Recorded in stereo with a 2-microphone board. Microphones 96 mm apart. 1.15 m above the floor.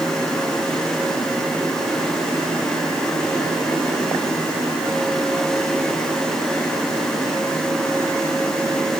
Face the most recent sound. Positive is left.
No sound to turn to.